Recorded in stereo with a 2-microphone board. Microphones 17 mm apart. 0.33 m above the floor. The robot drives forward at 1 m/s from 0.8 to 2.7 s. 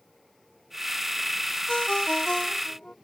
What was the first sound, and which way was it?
A ringtone, 70° left (ahead or behind).